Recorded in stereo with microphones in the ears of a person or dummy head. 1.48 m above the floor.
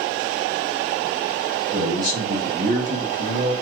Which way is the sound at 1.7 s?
15° right (ahead or behind).